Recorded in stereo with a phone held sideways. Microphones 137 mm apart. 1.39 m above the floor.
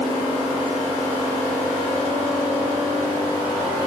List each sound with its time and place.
Only background noise.